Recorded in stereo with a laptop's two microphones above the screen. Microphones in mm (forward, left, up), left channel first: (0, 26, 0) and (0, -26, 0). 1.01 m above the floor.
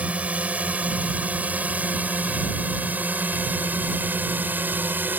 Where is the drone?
30° right (ahead or behind); by 5.2 s 40° right (ahead or behind).